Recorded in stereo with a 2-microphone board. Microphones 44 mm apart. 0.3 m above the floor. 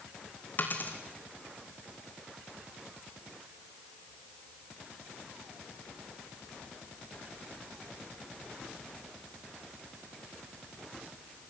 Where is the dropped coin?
45° left (ahead or behind), 2.5 m.